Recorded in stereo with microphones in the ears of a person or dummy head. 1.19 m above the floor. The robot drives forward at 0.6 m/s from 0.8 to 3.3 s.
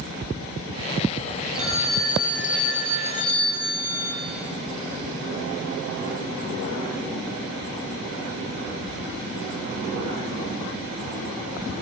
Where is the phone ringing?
20° left (ahead or behind), 3 m; by 4.2 s 30° left (ahead or behind), 1.9 m.